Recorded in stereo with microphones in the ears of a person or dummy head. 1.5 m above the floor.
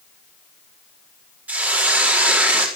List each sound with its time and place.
1.5 s a hiss: 5° right (ahead or behind), 4 m